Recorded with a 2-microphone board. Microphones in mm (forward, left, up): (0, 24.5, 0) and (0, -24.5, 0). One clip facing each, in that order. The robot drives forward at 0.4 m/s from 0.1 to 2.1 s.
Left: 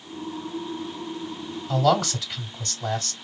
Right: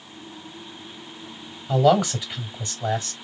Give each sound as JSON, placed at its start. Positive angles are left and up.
{"t": 1.7, "sound": "a man speaking", "side_deg": -15, "distance_m": 1.6}